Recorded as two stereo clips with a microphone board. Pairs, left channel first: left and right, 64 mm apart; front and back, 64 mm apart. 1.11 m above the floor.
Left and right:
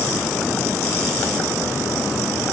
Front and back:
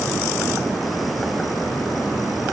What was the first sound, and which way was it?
Only background noise.